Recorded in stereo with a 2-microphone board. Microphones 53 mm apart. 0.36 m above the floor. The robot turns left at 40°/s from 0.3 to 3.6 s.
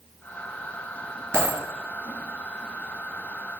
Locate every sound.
1.3 s a dropped coin: 65° right (ahead or behind), 2 m; by 1.6 s 55° right (ahead or behind), 2 m